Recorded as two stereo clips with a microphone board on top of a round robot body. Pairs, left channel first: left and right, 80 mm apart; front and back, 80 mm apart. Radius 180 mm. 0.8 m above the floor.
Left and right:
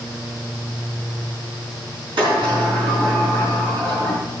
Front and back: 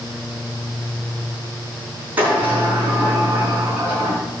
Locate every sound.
2.2 s a sliding door: 110° right, 4.5 m